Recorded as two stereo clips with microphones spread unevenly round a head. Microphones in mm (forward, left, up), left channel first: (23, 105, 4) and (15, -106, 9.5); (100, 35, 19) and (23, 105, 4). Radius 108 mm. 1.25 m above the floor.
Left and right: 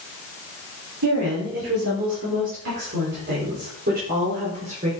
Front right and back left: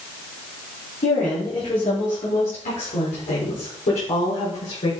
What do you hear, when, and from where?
1.0 s a woman speaking: 80° right, 4.5 m; by 4.9 s 35° right, 5.5 m